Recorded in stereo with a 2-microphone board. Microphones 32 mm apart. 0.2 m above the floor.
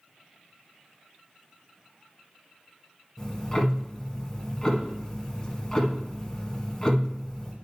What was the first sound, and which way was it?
Ticking, 15° left (ahead or behind).